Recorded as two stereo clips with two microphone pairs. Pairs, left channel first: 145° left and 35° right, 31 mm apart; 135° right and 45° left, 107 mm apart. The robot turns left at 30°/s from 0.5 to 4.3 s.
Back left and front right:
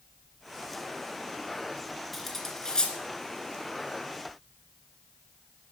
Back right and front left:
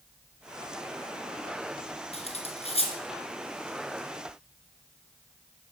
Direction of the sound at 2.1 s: 130° right.